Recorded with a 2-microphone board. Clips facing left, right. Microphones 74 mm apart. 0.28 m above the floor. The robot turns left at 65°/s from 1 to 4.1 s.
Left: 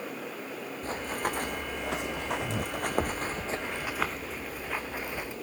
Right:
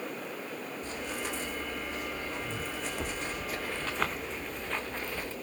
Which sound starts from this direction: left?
Running footsteps, at 0.8 s.